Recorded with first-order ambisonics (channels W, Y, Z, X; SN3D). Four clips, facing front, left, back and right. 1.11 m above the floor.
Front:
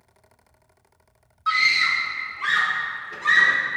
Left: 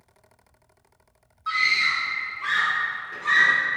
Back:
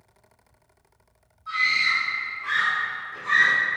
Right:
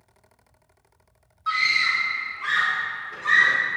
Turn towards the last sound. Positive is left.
turn(degrees=0)